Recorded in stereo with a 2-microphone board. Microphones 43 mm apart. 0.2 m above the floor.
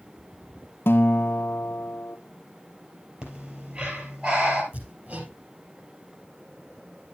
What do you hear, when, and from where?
0.9 s a guitar: 65° left (ahead or behind), 0.7 m
3.2 s breathing: 30° right (ahead or behind), 3 m
4.7 s hammering: 40° right (ahead or behind), 4 m